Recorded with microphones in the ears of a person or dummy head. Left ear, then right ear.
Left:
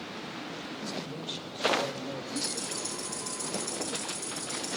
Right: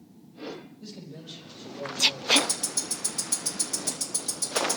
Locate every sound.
0.8 s a man speaking: 25° left (ahead or behind), 5.5 m; by 2.2 s 10° left (ahead or behind), 3.5 m
2.4 s ticking: 60° right (ahead or behind), 2.5 m